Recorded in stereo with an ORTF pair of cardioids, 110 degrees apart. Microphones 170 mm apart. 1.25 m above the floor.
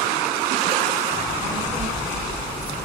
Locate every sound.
1.1 s a child speaking: 15° right, 8.5 m; by 2.9 s 5° right, 8.5 m